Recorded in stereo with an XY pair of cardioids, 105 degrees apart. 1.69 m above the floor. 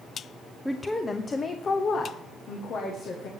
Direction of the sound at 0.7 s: 5° left.